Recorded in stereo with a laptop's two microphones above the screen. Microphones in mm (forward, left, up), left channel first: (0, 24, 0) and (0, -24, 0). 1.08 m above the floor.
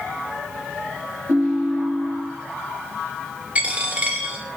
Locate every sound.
1.3 s a ringtone: 80° right, 1.3 m
3.5 s a dropped coin: 30° right (ahead or behind), 1.4 m